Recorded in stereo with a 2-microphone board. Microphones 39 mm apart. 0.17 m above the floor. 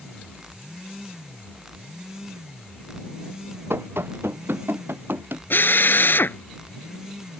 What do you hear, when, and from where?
3.7 s running footsteps: 85° right; by 5.4 s 75° right (ahead or behind)
5.5 s a drill: 65° left (ahead or behind)